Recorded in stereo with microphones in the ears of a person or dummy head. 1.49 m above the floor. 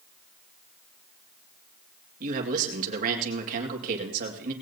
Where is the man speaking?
50° right (ahead or behind), 2.5 m.